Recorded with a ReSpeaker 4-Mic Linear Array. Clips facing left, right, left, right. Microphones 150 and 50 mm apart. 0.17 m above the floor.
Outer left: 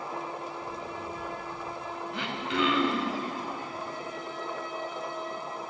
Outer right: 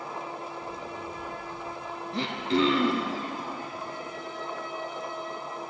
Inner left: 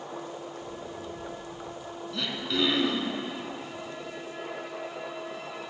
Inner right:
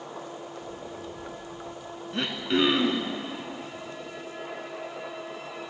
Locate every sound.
2.1 s throat clearing: 35° right (ahead or behind), 0.6 m